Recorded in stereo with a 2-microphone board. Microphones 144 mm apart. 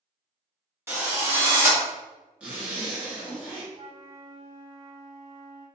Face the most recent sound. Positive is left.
turn(degrees=-45)  # may be behind; listen again after turning